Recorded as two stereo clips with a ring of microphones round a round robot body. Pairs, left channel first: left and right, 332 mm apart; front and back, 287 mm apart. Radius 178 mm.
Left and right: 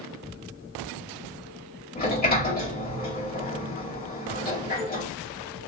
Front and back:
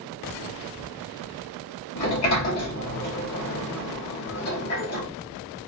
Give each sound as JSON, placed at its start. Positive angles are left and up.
{"t": 1.9, "sound": "a sliding door", "azimuth_deg": 25, "distance_m": 1.6}